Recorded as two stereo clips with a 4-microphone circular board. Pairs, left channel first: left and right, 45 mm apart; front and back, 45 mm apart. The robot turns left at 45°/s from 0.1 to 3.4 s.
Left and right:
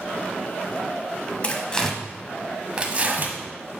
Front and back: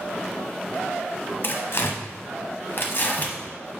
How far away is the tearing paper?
About 1.0 m.